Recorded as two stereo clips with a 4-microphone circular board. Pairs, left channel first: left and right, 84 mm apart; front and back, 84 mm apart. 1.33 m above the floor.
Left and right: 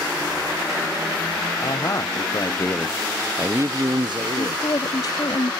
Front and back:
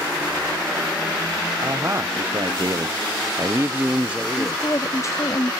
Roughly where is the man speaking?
Behind left.